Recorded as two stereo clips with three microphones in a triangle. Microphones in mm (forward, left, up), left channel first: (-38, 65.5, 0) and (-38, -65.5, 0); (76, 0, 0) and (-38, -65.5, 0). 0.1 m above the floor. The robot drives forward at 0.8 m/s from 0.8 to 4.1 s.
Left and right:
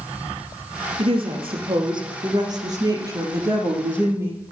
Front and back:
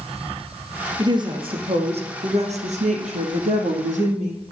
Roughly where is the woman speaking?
Right.